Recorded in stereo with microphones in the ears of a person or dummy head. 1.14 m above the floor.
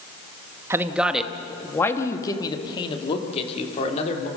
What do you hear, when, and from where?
0.7 s a man speaking: 15° right (ahead or behind), 1.3 m; by 4.3 s 45° left (ahead or behind), 3 m